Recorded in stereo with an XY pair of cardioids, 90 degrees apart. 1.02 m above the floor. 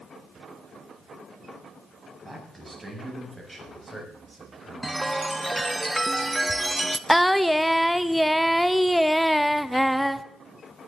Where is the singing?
Straight ahead, 0.7 m.